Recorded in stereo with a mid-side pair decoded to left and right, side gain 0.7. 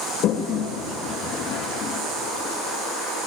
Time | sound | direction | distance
0.2 | a toilet flushing | 55° left | 1.9 m